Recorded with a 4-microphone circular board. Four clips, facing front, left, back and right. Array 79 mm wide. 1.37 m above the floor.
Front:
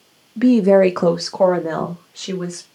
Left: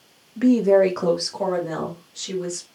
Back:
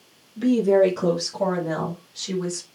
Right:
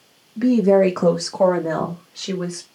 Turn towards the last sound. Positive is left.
turn(degrees=-35)